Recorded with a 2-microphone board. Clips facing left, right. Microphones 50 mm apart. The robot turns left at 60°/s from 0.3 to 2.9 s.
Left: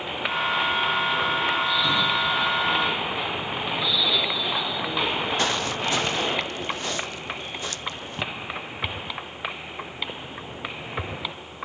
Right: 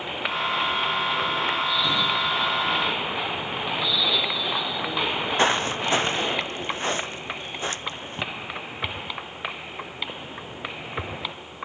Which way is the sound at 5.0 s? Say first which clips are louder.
Right 3 dB; 30° right (ahead or behind).